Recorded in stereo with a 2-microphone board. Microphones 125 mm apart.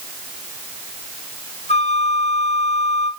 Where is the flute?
65° left (ahead or behind), 2.5 m.